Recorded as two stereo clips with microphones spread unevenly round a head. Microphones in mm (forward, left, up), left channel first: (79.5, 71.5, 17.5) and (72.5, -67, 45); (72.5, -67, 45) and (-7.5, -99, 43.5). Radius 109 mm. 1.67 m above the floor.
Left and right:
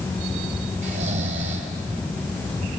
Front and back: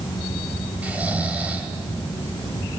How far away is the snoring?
About 2.5 m.